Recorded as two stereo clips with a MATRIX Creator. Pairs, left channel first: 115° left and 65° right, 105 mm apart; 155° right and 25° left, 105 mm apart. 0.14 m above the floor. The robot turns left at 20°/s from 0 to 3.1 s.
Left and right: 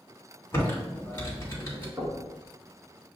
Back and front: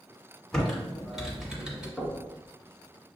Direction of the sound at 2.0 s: 65° right.